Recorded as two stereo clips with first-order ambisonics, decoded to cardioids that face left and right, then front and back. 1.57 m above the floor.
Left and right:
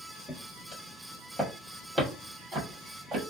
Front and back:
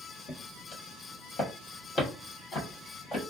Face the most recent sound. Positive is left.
turn(degrees=-60)